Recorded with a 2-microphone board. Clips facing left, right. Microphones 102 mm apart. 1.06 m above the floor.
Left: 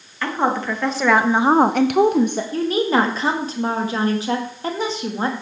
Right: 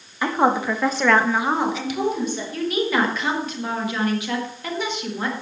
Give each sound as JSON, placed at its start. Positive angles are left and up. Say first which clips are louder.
{"t": 0.2, "sound": "a woman speaking", "louder": "right 2 dB", "side_deg": -15, "distance_m": 2.0}
{"t": 2.5, "sound": "a woman speaking", "louder": "left 3 dB", "side_deg": 35, "distance_m": 1.7}